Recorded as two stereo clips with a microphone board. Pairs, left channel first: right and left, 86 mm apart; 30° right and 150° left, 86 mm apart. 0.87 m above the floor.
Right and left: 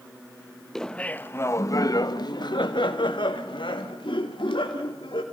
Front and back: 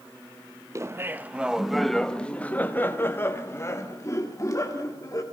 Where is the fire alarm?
No fire alarm in this recording.